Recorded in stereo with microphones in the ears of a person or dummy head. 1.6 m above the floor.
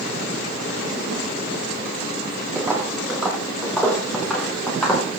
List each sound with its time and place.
2.5 s footsteps: 15° right (ahead or behind), 3.5 m; by 5.2 s 5° left (ahead or behind), 7 m